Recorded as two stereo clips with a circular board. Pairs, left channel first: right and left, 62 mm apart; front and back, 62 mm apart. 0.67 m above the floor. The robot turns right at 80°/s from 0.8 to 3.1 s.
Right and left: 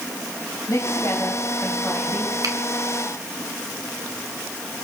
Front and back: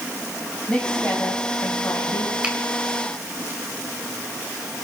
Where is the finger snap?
105° left, 3 m; by 2.5 s 115° left, 3 m.